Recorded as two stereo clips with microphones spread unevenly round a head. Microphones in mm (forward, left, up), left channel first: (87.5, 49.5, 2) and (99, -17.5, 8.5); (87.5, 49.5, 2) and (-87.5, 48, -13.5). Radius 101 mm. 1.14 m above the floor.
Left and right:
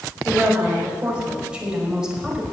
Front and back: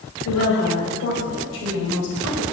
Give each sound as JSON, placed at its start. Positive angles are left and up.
{"t": 0.2, "sound": "a woman speaking", "azimuth_deg": -15, "distance_m": 5.0}